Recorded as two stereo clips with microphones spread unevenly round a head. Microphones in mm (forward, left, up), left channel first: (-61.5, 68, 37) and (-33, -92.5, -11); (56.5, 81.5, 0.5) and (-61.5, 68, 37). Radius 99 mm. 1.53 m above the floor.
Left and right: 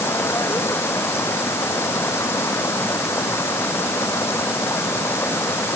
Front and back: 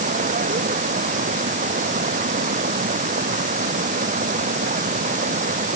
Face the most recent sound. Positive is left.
turn(degrees=175)